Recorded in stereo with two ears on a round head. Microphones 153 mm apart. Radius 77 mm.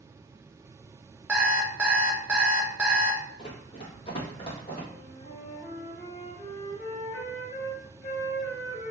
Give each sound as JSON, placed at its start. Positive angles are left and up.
{"t": 1.3, "sound": "an alarm clock", "side_deg": -10, "distance_m": 0.7}
{"t": 3.4, "sound": "running footsteps", "side_deg": 35, "distance_m": 1.4}
{"t": 4.9, "sound": "a flute", "side_deg": 70, "distance_m": 1.6}